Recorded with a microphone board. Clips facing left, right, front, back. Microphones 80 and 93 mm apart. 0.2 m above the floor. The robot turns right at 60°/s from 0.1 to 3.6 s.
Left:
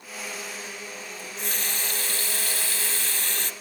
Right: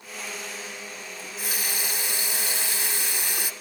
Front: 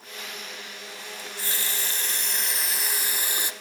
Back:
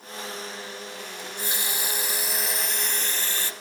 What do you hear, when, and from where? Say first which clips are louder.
1.2 s a running tap: right 1 dB, back 2 dB; 170° right, 0.6 m; by 3.5 s 35° right, 0.6 m